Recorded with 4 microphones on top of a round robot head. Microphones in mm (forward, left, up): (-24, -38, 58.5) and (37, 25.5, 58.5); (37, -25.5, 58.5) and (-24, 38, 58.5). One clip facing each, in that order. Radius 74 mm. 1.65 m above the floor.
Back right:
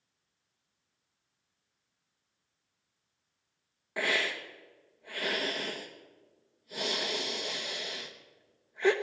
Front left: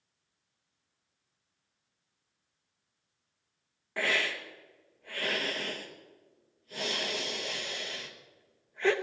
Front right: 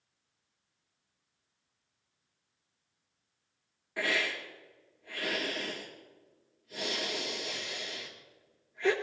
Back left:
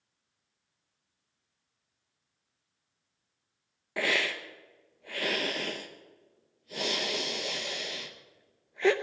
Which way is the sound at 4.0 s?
145° left.